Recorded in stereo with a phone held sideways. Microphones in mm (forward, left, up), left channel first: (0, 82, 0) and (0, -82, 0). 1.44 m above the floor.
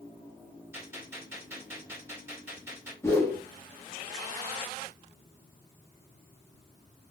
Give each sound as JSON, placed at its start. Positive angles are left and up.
{"t": 0.7, "sound": "a gunshot", "side_deg": -15, "distance_m": 1.5}
{"t": 3.0, "sound": "a whoosh", "side_deg": 15, "distance_m": 0.9}